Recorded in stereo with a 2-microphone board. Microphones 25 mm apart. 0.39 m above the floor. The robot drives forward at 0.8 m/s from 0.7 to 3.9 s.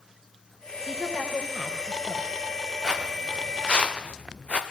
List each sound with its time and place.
0.9 s a woman speaking: 50° left (ahead or behind), 9 m; by 2.4 s 45° left (ahead or behind), 10 m
2.8 s footsteps: 35° left (ahead or behind), 4.5 m; by 4.6 s 60° left (ahead or behind), 4 m